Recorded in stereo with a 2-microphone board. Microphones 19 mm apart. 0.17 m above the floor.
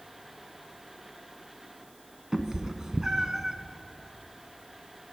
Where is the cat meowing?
35° right (ahead or behind), 0.8 m.